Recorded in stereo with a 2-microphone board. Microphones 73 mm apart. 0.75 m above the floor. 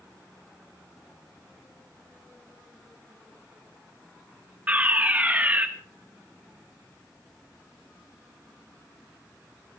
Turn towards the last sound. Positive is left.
turn(degrees=-20)  # may be behind; listen again after turning